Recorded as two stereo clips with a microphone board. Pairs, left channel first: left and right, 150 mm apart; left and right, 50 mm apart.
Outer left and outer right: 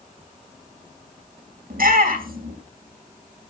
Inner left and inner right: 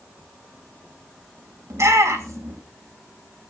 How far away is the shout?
About 3 m.